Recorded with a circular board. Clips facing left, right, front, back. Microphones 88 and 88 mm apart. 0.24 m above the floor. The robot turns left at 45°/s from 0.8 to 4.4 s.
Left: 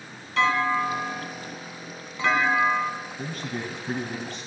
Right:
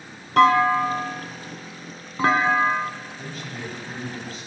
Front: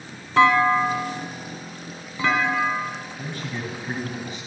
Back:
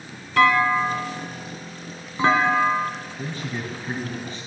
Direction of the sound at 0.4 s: 65° right.